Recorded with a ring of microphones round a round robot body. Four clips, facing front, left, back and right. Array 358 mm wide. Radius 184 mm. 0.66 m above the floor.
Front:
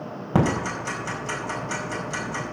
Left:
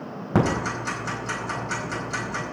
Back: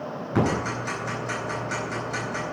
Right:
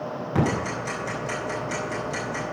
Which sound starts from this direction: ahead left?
Ticking, at 0.3 s.